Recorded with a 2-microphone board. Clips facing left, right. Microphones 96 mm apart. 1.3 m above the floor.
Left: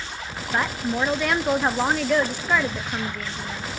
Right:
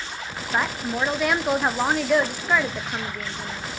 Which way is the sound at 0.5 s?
5° right (ahead or behind).